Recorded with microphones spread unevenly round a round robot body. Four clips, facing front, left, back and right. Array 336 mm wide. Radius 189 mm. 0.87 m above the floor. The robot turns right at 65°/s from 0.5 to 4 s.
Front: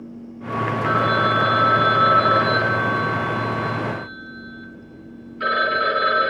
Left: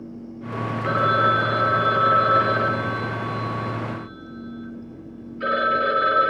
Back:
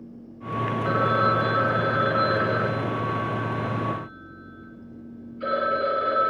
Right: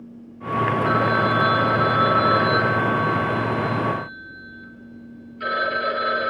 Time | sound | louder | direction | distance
0.8 | a phone ringing | left 4 dB, front 2 dB | 150° left | 8 m